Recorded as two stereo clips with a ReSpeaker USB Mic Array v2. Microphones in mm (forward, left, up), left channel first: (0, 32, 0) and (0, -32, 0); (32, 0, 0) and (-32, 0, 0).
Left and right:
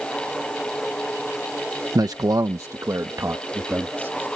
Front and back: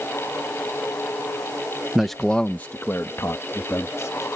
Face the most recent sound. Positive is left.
turn(degrees=-35)